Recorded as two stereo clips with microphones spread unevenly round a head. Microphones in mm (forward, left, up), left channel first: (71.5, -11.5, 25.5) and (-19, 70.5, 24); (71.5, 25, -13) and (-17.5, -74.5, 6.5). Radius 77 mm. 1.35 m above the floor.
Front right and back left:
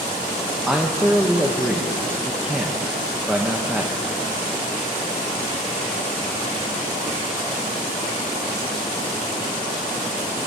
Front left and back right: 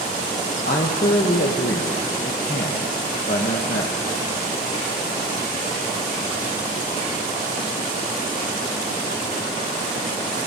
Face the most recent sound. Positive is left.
turn(degrees=55)